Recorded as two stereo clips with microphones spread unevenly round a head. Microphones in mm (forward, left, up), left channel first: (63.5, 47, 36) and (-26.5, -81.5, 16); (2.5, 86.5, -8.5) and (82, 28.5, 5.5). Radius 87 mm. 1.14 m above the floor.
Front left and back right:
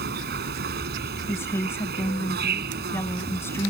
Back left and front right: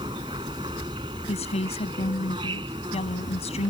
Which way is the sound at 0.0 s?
100° right.